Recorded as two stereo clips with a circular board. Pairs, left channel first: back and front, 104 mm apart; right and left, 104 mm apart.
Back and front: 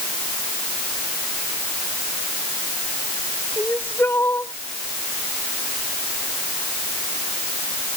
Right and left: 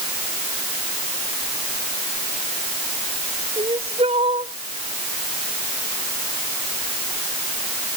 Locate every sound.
3.6 s crying: 110° left